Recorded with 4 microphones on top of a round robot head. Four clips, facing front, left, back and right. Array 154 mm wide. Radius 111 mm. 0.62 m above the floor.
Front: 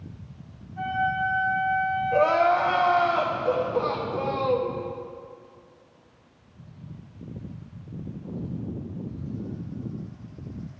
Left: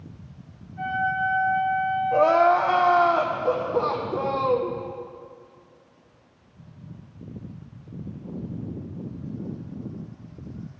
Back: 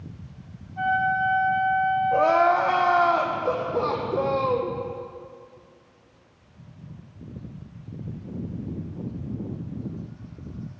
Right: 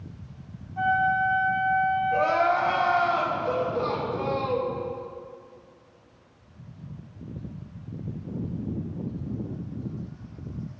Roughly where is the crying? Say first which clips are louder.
Left 8 dB, even; behind left.